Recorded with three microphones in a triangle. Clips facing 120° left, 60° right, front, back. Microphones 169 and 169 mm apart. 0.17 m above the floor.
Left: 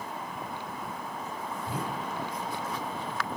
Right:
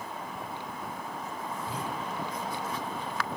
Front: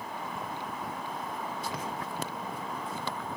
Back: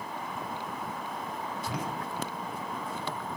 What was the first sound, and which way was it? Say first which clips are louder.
A whoosh: left 3 dB, back 1 dB; 160° left.